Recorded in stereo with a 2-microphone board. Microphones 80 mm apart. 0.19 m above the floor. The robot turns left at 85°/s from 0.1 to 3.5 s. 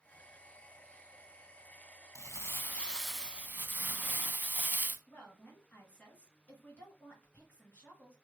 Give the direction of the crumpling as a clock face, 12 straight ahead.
9 o'clock.